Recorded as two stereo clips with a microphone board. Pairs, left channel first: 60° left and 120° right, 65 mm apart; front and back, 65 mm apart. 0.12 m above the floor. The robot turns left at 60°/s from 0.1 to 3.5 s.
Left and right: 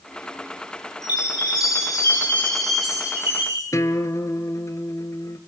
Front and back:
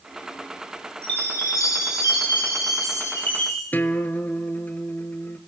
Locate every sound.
1.0 s a chime: 75° left, 9.5 m; by 3.6 s 75° right, 9.5 m
3.7 s a guitar: 55° left, 1.3 m